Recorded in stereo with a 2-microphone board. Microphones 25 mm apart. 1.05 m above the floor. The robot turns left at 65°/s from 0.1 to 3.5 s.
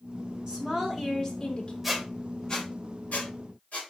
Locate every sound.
0.5 s a woman speaking: 140° right, 2.5 m; by 1.7 s 135° left, 2.5 m
1.8 s a squeak: 10° right (ahead or behind), 3 m; by 3.8 s 80° left, 3 m